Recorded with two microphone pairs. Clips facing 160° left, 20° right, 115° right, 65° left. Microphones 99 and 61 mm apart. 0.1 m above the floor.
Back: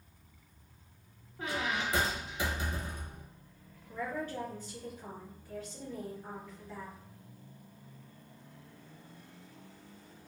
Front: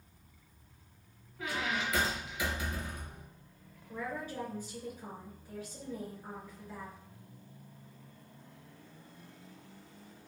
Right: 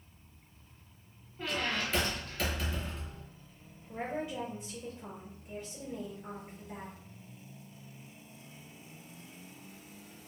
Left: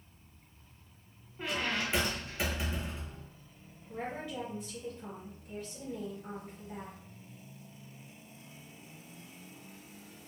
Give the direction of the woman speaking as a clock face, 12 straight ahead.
3 o'clock.